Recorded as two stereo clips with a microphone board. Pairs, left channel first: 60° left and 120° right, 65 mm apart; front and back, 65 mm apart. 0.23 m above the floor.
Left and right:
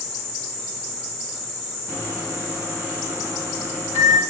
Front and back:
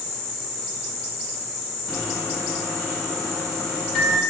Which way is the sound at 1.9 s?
70° right.